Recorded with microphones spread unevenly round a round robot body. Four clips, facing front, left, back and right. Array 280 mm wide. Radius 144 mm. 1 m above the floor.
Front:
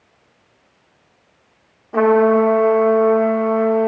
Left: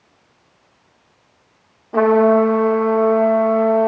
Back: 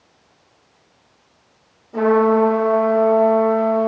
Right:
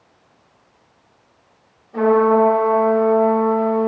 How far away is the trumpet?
About 1.1 m.